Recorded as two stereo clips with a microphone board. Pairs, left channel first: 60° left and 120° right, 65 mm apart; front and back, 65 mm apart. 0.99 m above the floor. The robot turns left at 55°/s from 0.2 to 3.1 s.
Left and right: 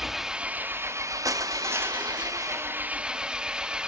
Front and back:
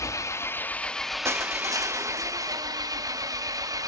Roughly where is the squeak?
No squeak in this recording.